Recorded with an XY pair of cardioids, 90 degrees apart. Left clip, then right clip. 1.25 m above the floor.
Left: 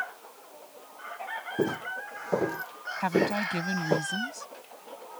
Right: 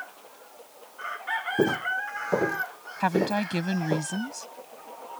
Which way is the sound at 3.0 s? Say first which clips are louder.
Right 1 dB; 30° right.